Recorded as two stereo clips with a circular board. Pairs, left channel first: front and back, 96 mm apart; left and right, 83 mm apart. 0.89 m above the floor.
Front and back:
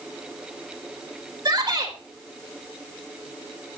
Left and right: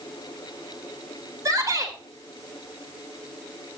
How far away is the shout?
About 4 m.